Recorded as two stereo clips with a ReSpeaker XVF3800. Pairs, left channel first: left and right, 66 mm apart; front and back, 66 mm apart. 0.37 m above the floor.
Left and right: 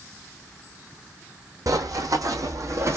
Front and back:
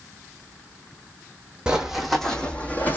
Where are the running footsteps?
100° right, 0.9 m; by 3.0 s 55° right, 1.0 m.